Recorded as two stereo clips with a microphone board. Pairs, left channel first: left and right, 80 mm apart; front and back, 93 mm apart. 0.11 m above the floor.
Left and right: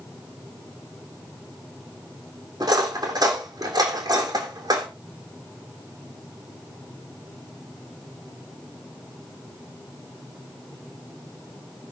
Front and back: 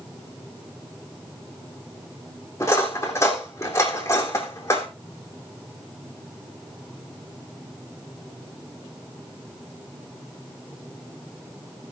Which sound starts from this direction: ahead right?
Cutlery clinking, at 2.6 s.